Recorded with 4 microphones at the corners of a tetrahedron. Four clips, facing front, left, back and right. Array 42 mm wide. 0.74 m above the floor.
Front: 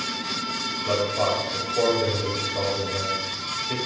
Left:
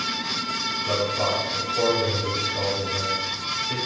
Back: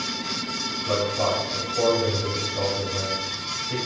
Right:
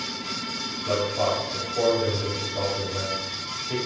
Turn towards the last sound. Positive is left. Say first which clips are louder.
# right 1 dB, even
turn(degrees=-5)